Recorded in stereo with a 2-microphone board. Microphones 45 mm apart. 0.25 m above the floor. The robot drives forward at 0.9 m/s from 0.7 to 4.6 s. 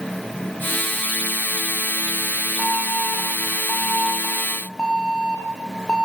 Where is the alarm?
20° left (ahead or behind), 4.5 m; by 6.0 s 15° left (ahead or behind), 6.5 m.